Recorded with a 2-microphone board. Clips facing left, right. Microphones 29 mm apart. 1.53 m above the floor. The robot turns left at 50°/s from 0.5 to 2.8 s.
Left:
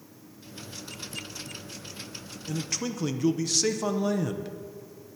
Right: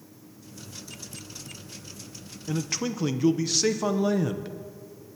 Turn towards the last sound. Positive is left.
turn(degrees=-15)  # may be behind; listen again after turning